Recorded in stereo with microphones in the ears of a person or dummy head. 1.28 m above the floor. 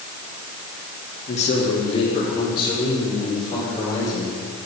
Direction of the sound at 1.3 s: 40° left (ahead or behind).